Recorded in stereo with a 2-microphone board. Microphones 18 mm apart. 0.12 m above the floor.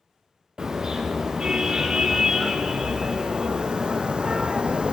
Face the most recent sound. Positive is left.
turn(degrees=-70)  # may be behind; listen again after turning